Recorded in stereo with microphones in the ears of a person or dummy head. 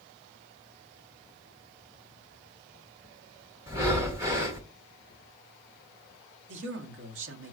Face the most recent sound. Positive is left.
turn(degrees=-75)  # may be behind; listen again after turning